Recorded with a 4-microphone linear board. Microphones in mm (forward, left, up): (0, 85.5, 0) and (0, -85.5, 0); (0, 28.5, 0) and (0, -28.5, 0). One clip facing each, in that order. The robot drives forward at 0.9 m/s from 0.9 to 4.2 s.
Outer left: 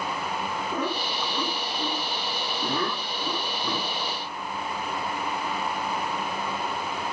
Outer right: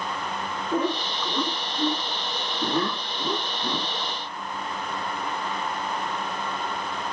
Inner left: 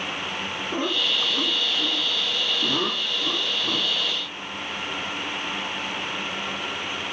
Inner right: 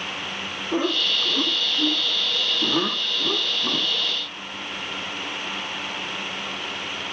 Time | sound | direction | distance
0.7 | laughter | 65° right (ahead or behind) | 8.5 m